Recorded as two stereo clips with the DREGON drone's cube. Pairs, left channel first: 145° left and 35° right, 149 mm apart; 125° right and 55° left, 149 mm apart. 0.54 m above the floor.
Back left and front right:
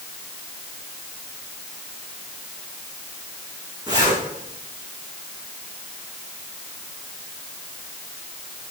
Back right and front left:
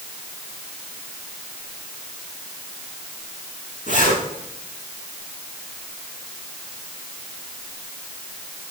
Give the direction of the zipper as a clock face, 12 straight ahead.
3 o'clock.